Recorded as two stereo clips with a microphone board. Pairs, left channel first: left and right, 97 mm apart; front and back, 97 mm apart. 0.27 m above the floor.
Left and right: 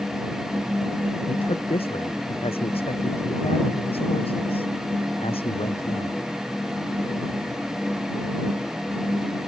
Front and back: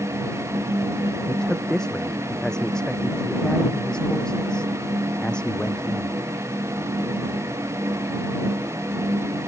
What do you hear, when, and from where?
1.3 s a man speaking: 85° left; by 6.2 s 80° left